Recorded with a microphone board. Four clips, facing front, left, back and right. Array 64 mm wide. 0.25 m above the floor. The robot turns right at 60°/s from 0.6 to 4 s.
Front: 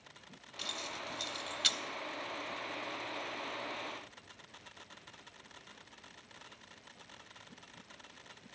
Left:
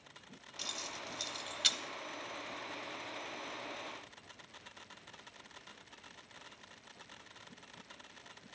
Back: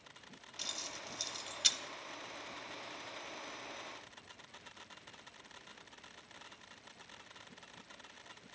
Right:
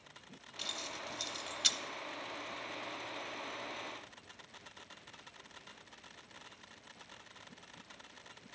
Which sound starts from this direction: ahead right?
Keys jangling, at 0.6 s.